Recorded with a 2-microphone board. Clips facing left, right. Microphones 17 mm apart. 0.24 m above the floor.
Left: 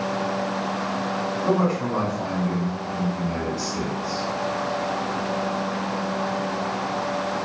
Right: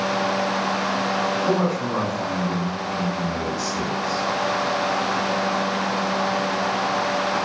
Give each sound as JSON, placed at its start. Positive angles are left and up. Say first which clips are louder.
{"t": 1.4, "sound": "a man speaking", "louder": "even", "side_deg": 40, "distance_m": 1.9}